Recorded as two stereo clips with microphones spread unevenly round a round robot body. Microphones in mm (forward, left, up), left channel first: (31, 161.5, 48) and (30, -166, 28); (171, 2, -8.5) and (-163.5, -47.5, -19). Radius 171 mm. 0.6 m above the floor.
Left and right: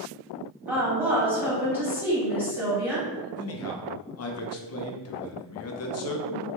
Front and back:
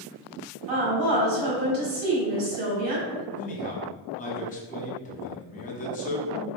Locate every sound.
0.7 s a woman speaking: 170° right, 1.8 m
3.4 s a man speaking: 70° left, 0.8 m